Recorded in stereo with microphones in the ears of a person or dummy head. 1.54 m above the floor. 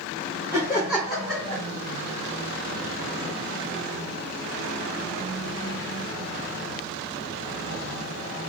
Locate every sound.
0.5 s laughter: 20° right (ahead or behind), 1.7 m; by 1.6 s 5° left (ahead or behind), 1.9 m